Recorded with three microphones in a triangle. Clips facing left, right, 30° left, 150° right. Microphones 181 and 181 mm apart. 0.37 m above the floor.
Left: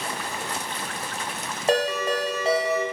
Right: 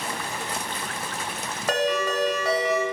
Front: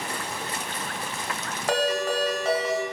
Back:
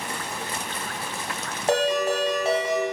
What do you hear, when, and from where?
1.7 s a ringtone: 150° left, 0.7 m